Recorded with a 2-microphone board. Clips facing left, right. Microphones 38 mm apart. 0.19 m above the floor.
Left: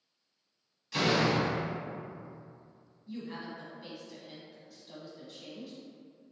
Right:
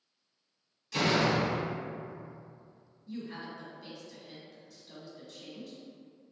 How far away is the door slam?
About 0.7 m.